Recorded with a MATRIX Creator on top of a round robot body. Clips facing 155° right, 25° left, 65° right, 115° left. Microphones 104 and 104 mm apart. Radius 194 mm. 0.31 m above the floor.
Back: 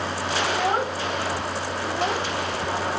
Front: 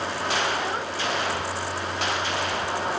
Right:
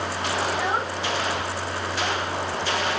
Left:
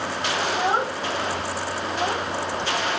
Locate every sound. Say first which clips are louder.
0.5 s a child speaking: back 4 dB, left 2 dB; 175° left